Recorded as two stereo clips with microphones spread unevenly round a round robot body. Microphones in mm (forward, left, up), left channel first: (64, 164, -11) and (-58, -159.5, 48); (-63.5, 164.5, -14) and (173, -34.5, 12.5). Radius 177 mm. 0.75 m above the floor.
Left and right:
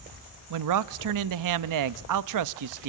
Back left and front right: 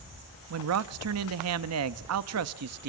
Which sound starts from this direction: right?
A man speaking, at 0.5 s.